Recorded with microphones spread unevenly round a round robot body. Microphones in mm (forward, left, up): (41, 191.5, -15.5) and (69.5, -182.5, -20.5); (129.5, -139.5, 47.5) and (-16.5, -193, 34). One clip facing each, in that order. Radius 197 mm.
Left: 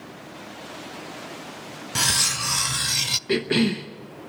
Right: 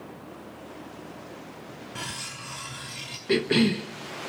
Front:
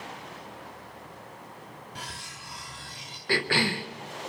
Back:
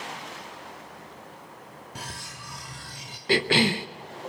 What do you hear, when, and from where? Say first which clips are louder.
1.9 s cutlery clinking: left 7 dB, back 2 dB; 125° left, 0.5 m
3.3 s a cough: even, back 5 dB; 175° right, 0.7 m